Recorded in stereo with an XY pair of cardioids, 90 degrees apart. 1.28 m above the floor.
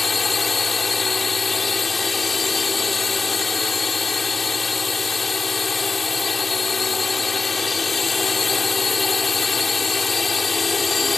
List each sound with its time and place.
0.0 s a drone: 30° left